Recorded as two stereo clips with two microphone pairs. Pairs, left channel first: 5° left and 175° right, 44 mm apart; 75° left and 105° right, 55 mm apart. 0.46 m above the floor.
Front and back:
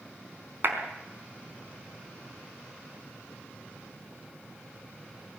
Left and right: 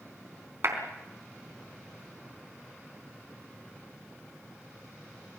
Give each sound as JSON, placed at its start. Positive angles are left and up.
{"t": 0.6, "sound": "a clap", "azimuth_deg": -145, "distance_m": 4.0}